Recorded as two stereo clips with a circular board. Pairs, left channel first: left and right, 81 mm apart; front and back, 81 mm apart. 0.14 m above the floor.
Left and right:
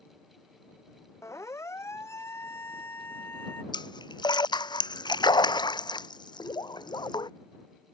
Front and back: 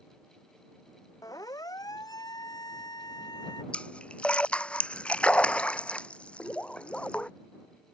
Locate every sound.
1.2 s a siren: 40° left; by 3.6 s 30° left
3.7 s a splash: 75° left